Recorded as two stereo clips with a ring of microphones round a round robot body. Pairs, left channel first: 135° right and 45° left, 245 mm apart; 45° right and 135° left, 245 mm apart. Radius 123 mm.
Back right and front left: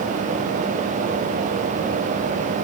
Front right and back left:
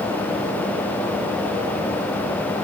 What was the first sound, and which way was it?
Only background noise.